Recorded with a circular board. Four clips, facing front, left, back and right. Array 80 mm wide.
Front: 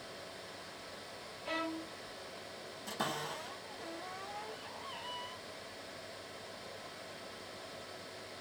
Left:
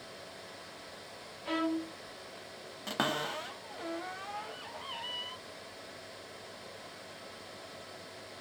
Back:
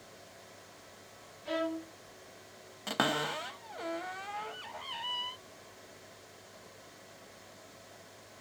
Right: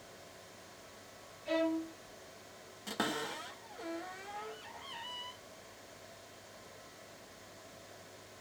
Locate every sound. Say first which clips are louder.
1.4 s a violin: even, back 5 dB; 80° left, 1.3 m
2.9 s a cupboard door: left 4 dB, back 7 dB; 160° left, 0.6 m